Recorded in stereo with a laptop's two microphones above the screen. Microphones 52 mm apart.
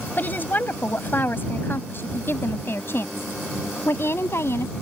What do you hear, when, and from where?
0.2 s a woman speaking: 40° left (ahead or behind); by 4.7 s 60° left (ahead or behind)